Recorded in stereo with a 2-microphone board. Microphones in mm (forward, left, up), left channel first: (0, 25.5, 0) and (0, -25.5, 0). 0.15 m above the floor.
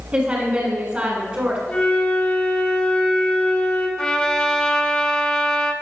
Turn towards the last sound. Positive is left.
turn(degrees=20)  # may be behind; listen again after turning